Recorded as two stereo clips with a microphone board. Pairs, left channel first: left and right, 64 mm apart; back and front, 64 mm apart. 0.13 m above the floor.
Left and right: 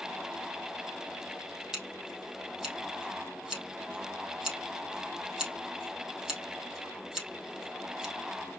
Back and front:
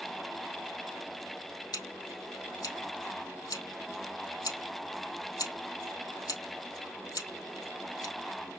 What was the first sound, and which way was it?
Scissors, 175° right.